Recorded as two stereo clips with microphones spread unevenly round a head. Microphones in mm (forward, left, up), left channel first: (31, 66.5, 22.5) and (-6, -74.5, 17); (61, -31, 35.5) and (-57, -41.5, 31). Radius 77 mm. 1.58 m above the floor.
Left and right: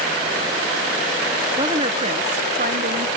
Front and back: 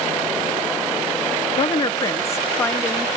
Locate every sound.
1.6 s a woman speaking: 45° right; by 3.1 s 75° right